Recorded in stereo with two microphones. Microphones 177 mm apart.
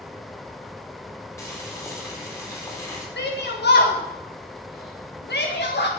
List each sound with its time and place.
1.4 s boiling: 15° left (ahead or behind), 4 m
3.2 s a shout: 75° left (ahead or behind), 1.4 m